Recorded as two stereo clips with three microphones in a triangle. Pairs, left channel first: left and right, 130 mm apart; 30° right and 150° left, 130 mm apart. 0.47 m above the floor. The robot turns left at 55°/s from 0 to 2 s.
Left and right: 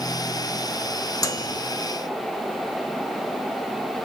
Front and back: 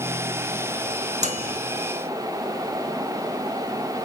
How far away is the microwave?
About 1.4 m.